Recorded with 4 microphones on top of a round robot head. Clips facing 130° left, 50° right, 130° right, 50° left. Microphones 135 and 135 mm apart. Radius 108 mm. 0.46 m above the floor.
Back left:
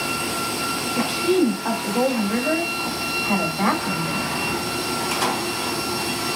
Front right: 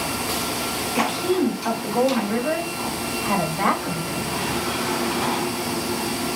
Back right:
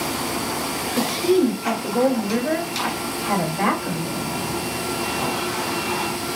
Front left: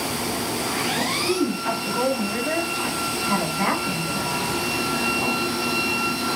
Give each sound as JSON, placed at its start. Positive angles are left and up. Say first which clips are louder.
{"t": 1.0, "sound": "a woman speaking", "louder": "back left 2 dB, back right 7 dB", "azimuth_deg": -135, "distance_m": 2.5}